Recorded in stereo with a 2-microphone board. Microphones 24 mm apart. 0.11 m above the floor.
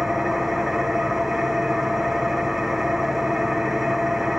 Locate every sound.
0.0 s an engine running: 5° right (ahead or behind), 5.5 m